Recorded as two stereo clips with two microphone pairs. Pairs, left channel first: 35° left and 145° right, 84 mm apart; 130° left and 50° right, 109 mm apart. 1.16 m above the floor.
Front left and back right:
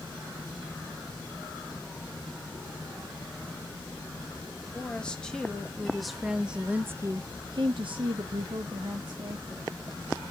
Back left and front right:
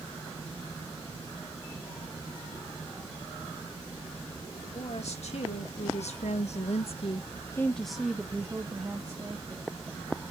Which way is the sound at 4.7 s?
115° left.